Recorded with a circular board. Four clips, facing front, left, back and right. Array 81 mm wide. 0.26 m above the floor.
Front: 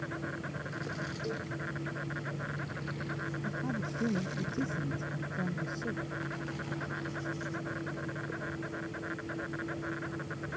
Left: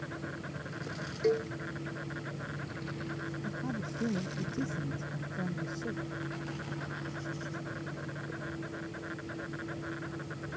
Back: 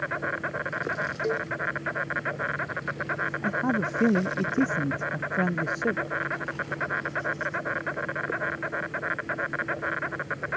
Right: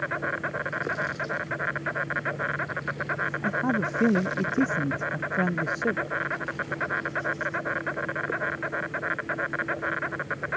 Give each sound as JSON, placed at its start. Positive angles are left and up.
{"t": 0.0, "sound": "an insect", "azimuth_deg": -135}
{"t": 1.2, "sound": "a cowbell", "azimuth_deg": 130}
{"t": 3.4, "sound": "a man speaking", "azimuth_deg": -140}